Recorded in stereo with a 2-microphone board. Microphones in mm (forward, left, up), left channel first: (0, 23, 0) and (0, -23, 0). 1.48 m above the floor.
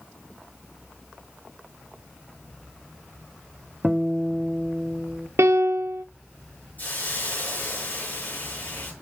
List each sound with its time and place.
3.8 s a guitar: 5° right (ahead or behind), 0.9 m
5.4 s a piano: 80° right, 0.6 m
6.8 s a hiss: 40° left (ahead or behind), 6.5 m